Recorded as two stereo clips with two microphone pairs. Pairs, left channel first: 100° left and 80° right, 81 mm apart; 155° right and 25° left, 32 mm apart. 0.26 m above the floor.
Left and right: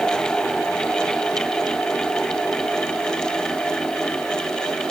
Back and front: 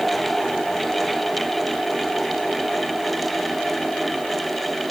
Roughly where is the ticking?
No ticking in this recording.